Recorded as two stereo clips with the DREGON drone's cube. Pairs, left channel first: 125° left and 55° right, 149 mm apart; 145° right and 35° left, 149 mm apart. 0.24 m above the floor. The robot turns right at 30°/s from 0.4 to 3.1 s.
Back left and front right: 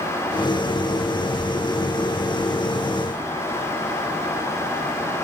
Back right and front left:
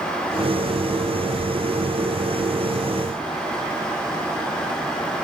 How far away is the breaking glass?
I don't hear breaking glass.